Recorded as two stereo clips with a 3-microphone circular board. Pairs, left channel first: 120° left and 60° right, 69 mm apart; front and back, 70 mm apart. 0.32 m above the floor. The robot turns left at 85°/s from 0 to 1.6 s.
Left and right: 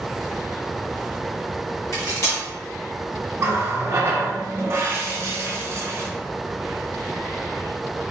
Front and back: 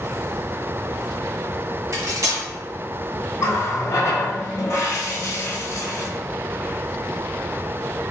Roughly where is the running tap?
Ahead right.